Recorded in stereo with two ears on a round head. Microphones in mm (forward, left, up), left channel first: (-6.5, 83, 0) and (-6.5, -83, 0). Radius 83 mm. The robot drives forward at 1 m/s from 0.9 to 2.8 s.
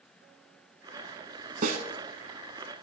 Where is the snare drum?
45° right (ahead or behind), 1.0 m; by 1.9 s 55° right (ahead or behind), 0.8 m.